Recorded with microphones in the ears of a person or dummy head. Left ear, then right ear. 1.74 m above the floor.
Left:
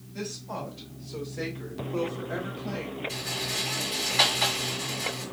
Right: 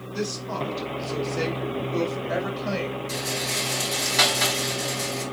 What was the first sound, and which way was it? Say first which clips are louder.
A woman speaking: right 6 dB; 70° right (ahead or behind).